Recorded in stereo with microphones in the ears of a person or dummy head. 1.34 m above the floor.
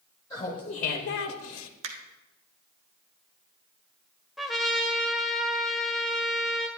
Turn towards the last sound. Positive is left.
turn(degrees=0)  # may be behind; listen again after turning